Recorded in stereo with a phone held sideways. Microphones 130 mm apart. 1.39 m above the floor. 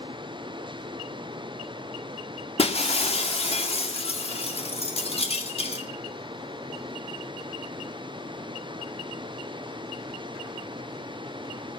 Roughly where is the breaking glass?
Left.